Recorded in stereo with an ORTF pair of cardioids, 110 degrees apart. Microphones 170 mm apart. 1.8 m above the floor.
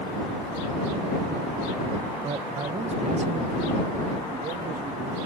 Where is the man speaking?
30° right; by 5.2 s 55° right.